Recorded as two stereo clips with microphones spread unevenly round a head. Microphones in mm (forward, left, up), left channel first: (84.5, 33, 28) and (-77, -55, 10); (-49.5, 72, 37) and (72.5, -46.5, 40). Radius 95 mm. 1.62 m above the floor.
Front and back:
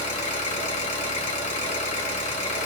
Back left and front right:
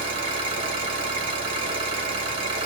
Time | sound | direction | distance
0.0 | an engine running | 5° left | 1.1 m